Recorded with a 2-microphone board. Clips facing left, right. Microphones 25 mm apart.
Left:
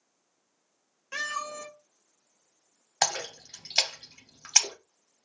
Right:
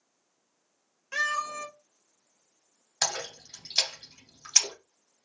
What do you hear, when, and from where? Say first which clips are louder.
1.1 s a cat meowing: right 4 dB; 5° right (ahead or behind), 1.0 m
3.0 s a splash: left 2 dB; 30° left (ahead or behind), 1.6 m